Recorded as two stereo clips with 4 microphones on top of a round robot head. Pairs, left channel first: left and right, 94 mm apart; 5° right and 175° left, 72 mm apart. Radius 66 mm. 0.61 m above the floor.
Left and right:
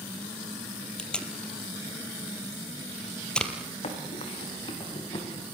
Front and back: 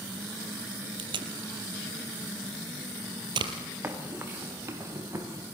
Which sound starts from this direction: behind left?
Running footsteps, at 3.8 s.